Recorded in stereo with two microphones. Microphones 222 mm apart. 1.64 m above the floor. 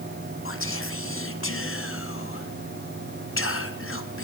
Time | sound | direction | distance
0.5 | whispering | 70° left (ahead or behind) | 0.7 m